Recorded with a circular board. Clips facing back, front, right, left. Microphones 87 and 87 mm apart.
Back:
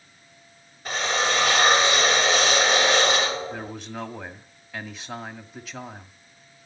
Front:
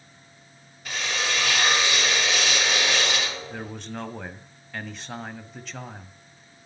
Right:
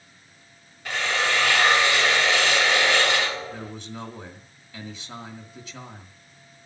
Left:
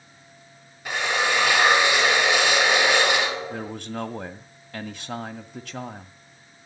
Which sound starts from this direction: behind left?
A drill, at 0.8 s.